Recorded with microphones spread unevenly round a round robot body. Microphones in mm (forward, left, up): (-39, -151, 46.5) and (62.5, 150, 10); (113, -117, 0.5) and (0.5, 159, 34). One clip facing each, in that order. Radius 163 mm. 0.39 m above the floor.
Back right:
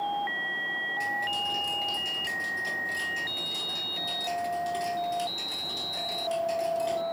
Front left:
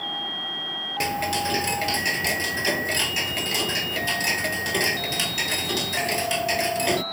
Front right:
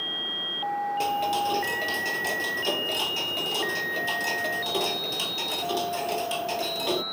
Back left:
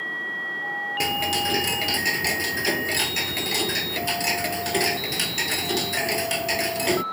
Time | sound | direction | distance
1.0 | ticking | 65° left | ?